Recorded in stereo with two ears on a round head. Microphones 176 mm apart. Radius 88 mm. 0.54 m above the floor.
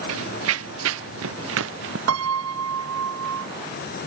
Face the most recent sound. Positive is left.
turn(degrees=-90)